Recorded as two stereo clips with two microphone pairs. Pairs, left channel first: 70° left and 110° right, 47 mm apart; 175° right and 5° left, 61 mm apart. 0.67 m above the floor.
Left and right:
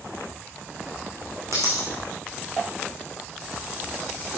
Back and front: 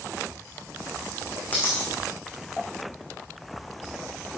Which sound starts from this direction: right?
A dropped coin, at 1.5 s.